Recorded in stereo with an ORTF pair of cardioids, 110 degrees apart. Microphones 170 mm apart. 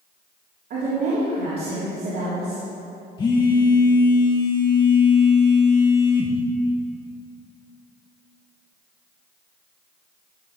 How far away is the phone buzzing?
About 2 m.